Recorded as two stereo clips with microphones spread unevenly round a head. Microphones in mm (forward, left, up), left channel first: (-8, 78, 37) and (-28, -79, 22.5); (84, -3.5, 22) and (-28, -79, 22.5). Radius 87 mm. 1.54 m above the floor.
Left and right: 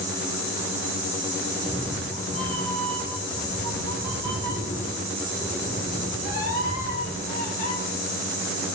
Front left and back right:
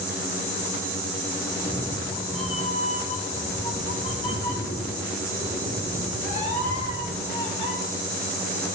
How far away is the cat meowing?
About 2.5 m.